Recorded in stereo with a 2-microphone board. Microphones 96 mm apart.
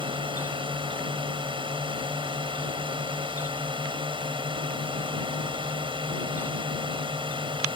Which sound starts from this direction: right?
A drone, at 0.0 s.